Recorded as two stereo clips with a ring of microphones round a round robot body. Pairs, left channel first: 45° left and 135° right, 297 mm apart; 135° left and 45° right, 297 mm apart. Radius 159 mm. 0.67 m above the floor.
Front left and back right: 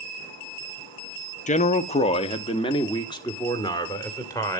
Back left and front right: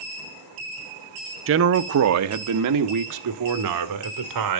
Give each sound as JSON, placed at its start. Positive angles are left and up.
{"t": 1.5, "sound": "a man speaking", "azimuth_deg": -15, "distance_m": 0.9}